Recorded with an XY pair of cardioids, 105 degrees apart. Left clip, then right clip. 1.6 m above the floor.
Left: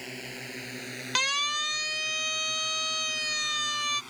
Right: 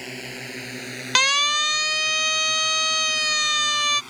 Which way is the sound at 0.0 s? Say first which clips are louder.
Right 5 dB; 40° right.